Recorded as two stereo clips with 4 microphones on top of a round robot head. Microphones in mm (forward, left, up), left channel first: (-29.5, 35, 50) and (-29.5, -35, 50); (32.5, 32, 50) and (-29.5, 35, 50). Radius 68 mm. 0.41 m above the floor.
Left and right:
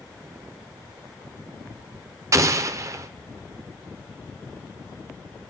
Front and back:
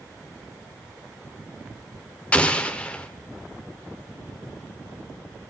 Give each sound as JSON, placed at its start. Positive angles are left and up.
{"t": 2.3, "sound": "an explosion", "azimuth_deg": -65, "distance_m": 0.7}